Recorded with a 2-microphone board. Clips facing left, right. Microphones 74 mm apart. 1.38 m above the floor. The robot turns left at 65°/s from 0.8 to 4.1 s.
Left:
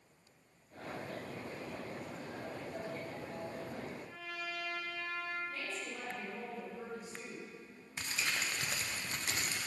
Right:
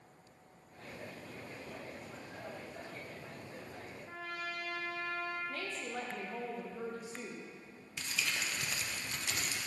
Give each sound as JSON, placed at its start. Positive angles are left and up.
{"t": 4.1, "sound": "a trumpet", "side_deg": -40, "distance_m": 1.1}
{"t": 5.5, "sound": "a woman speaking", "side_deg": -75, "distance_m": 1.9}
{"t": 8.0, "sound": "crumpling", "side_deg": 40, "distance_m": 0.7}